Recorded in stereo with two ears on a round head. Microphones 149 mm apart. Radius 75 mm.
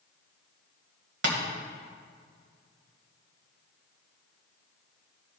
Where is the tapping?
70° right (ahead or behind), 2.5 m.